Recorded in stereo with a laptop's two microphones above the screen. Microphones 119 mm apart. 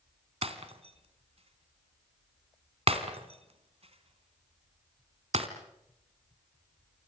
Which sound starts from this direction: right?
Breaking glass, at 0.4 s.